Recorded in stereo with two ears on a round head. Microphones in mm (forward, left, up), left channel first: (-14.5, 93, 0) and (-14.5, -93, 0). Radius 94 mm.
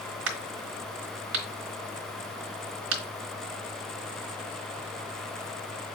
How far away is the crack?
About 2.0 m.